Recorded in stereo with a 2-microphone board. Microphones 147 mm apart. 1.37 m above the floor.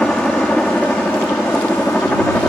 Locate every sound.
0.0 s a helicopter: 5° left (ahead or behind); by 2.5 s 10° left (ahead or behind)